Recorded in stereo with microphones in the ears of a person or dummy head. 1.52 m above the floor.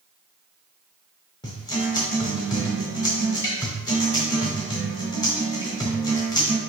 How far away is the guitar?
About 0.7 m.